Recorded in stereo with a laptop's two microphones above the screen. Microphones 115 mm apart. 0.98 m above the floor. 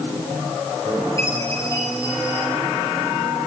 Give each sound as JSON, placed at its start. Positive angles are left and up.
{"t": 1.2, "sound": "a chime", "side_deg": 30, "distance_m": 8.0}